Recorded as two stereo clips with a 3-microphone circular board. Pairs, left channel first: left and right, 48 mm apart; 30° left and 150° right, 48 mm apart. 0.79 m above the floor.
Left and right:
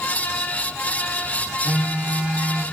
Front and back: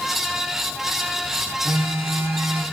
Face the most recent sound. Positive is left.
turn(degrees=-150)